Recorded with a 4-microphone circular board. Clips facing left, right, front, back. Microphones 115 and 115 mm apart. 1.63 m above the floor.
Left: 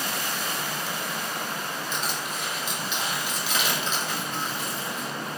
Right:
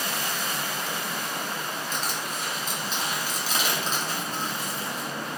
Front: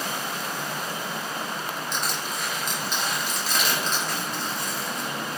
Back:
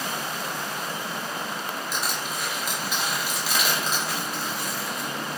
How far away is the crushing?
About 1.1 m.